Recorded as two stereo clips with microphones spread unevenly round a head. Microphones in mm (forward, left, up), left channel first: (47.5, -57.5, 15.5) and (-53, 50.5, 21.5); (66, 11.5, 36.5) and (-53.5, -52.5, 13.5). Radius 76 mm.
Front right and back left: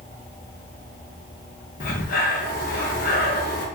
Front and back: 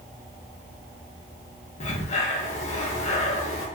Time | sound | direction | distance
1.8 | breathing | 15° right | 1.0 m